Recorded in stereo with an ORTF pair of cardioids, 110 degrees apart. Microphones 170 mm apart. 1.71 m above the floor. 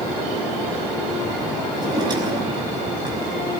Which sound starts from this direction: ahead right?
A drawer, at 1.7 s.